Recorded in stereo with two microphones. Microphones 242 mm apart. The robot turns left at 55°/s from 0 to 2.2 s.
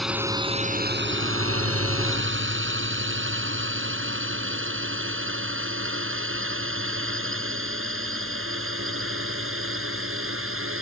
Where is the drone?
Centre (ahead or behind); by 10.8 s 60° right (ahead or behind).